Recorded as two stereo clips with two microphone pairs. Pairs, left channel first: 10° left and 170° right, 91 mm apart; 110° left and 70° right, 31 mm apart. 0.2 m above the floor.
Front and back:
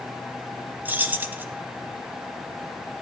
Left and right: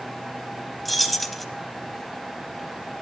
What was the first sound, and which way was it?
Keys jangling, straight behind.